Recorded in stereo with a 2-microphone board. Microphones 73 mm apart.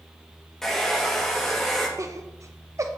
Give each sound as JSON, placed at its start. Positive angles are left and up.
{"t": 0.6, "sound": "a hair dryer", "side_deg": 5, "distance_m": 2.0}
{"t": 2.0, "sound": "laughter", "side_deg": -45, "distance_m": 0.6}